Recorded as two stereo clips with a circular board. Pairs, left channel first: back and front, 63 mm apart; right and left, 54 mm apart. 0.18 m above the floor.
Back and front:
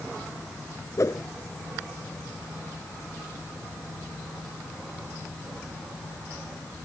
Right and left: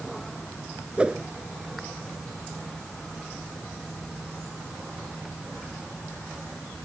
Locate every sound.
1.0 s a whoosh: 155° left